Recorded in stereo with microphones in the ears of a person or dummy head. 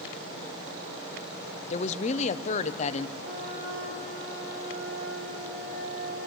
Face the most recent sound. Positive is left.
turn(degrees=-80)